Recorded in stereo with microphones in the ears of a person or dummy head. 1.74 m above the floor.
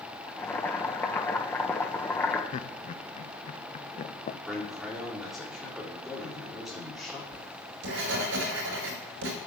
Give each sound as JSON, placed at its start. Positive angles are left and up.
{"t": 0.3, "sound": "boiling", "side_deg": 10, "distance_m": 1.3}
{"t": 2.5, "sound": "laughter", "side_deg": 45, "distance_m": 0.7}
{"t": 4.5, "sound": "a man speaking", "side_deg": 5, "distance_m": 4.5}
{"t": 7.3, "sound": "writing", "side_deg": -85, "distance_m": 5.0}